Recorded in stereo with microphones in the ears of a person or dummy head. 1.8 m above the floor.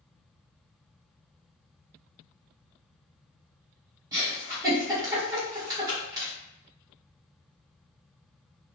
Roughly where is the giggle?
Centre.